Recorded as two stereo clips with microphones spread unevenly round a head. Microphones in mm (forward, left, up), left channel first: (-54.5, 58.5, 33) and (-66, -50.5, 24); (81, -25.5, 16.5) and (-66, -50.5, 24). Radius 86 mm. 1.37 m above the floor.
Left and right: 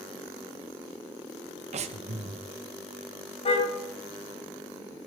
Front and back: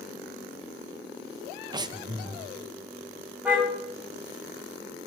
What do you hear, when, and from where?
1.7 s breathing: 110° right, 0.8 m
3.5 s a car horn: 110° left, 3.5 m